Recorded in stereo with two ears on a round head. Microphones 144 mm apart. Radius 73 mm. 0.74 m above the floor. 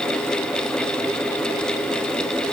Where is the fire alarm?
I don't hear a fire alarm.